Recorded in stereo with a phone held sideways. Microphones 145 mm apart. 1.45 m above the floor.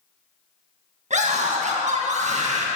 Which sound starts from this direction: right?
A scream, at 1.1 s.